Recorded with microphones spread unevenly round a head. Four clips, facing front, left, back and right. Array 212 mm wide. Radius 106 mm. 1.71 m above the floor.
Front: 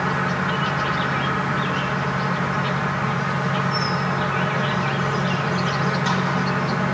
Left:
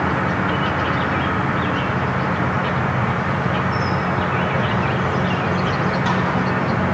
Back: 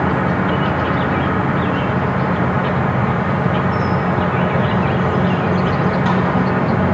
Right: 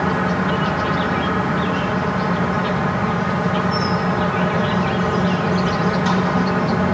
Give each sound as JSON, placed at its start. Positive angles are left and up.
{"t": 0.0, "sound": "an insect", "azimuth_deg": 180, "distance_m": 1.0}